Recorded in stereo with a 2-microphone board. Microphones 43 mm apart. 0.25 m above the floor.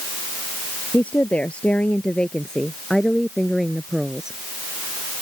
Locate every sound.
0.9 s a woman speaking: 35° left (ahead or behind); by 4.4 s 15° right (ahead or behind)